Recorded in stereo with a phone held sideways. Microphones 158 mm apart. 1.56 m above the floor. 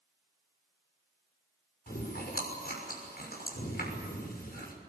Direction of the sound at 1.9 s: 75° left (ahead or behind).